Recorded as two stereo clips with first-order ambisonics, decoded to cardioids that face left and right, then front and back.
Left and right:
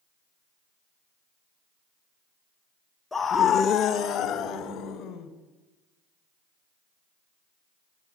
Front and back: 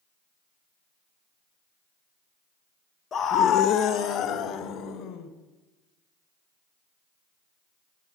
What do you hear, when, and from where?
3.1 s a scream: 20° left, 0.7 m; by 5.3 s 35° left, 3.5 m